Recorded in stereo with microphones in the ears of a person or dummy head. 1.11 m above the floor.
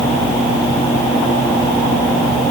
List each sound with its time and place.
Only background noise.